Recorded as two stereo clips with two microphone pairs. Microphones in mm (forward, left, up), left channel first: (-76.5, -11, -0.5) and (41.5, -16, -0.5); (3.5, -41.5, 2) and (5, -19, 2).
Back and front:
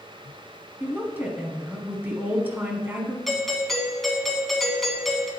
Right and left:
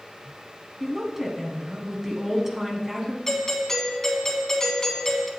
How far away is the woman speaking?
About 1.3 m.